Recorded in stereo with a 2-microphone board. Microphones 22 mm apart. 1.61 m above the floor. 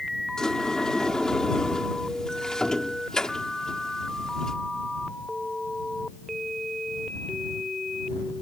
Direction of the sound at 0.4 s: 35° left (ahead or behind).